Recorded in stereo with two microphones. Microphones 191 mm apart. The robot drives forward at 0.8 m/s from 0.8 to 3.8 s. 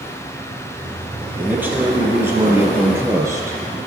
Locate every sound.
1.4 s a man speaking: 10° right (ahead or behind), 3 m; by 3.8 s 15° right (ahead or behind), 1.4 m